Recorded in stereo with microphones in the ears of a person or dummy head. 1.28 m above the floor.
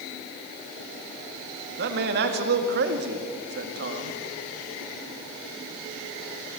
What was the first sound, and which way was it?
A man speaking, 55° right (ahead or behind).